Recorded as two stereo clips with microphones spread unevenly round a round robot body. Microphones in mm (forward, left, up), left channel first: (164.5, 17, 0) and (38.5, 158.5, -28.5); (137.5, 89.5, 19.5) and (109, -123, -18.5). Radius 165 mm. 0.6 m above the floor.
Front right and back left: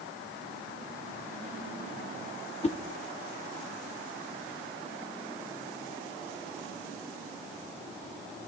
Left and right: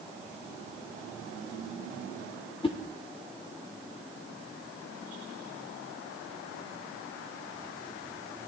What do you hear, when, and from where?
2.6 s a whoosh: 10° left, 1.1 m